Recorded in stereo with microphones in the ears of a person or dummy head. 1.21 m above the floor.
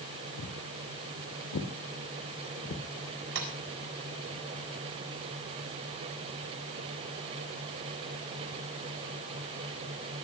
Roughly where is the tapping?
Right.